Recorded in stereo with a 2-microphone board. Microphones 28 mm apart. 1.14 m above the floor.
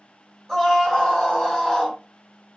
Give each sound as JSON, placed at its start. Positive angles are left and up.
{"t": 0.5, "sound": "a scream", "side_deg": 10, "distance_m": 2.0}